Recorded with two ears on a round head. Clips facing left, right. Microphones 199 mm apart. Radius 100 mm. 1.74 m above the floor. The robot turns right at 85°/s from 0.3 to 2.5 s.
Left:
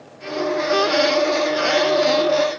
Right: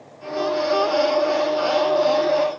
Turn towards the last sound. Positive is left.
No sound to turn to.